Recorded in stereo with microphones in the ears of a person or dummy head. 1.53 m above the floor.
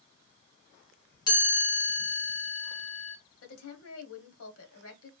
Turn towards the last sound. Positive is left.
turn(degrees=75)  # may be behind; listen again after turning